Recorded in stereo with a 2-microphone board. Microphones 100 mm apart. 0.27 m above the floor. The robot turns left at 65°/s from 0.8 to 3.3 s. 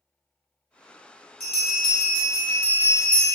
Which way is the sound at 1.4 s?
85° left.